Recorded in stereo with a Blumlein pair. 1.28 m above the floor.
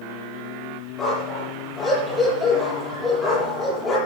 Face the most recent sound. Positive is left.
turn(degrees=20)